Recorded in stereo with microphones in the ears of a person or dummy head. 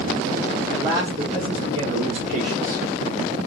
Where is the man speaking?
20° right (ahead or behind), 1.3 m; by 2.8 s 65° right (ahead or behind), 1.3 m.